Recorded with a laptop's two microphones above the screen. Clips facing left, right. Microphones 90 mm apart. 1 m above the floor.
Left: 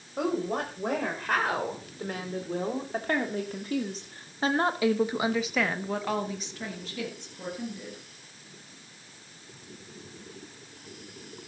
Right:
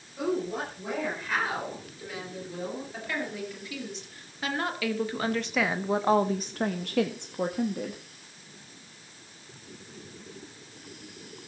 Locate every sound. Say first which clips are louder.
0.2 s a woman speaking: left 1 dB; 55° left (ahead or behind), 5.5 m; by 8.0 s 75° right (ahead or behind), 2 m